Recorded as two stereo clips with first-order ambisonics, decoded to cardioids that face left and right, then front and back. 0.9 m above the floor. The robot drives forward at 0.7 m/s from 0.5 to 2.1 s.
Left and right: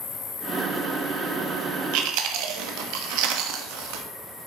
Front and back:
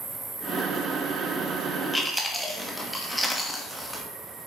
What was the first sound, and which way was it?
An insect, 115° left.